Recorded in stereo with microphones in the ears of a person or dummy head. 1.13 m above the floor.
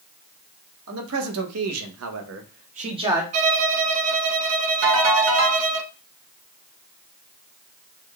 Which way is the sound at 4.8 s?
65° right (ahead or behind).